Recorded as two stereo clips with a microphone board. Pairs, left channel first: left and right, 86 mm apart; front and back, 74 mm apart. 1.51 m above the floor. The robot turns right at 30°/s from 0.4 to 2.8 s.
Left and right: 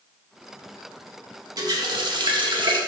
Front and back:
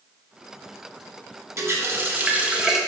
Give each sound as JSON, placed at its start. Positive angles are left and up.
{"t": 1.6, "sound": "a running tap", "azimuth_deg": -130, "distance_m": 1.4}